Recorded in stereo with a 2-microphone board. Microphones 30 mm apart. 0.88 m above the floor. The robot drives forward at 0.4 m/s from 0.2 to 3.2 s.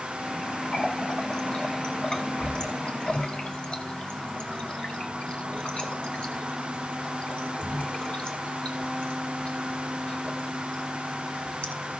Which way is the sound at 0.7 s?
30° left (ahead or behind).